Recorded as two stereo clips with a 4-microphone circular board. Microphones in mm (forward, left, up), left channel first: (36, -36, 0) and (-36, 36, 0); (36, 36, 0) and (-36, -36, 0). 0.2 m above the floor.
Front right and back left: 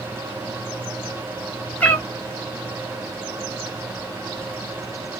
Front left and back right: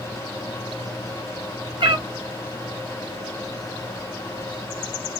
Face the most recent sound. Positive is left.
turn(degrees=-115)